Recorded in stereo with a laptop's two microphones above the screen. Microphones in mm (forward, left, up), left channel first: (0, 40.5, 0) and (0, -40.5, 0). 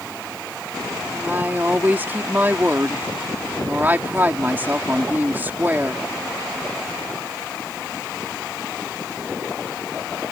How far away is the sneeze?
No sneeze in this recording.